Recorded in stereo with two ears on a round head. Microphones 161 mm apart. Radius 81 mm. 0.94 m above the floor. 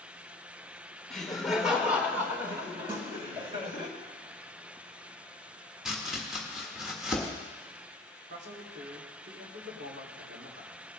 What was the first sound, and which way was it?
Laughter, 5° left (ahead or behind).